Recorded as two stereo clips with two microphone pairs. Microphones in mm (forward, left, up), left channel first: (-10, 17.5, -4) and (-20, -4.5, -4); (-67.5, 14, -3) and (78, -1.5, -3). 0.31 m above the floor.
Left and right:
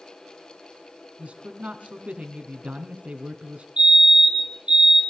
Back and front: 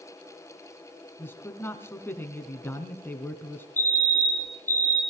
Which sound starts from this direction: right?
A man speaking, at 1.2 s.